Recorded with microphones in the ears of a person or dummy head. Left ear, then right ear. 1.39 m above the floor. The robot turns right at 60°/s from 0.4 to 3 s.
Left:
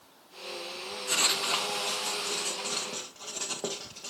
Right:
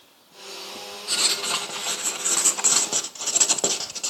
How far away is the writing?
About 1.0 m.